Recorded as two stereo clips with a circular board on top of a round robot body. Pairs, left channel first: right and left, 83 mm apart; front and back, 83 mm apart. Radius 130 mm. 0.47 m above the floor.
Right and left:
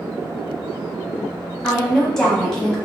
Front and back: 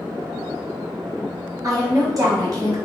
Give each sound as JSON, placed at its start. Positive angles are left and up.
{"t": 1.6, "sound": "a woman speaking", "azimuth_deg": -170, "distance_m": 1.6}